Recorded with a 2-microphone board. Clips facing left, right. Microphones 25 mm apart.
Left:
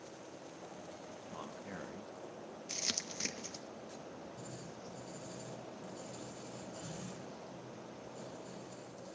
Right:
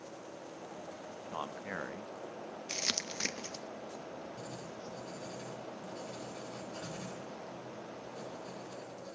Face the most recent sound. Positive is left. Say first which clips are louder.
# right 4 dB
turn(degrees=-70)  # may be behind; listen again after turning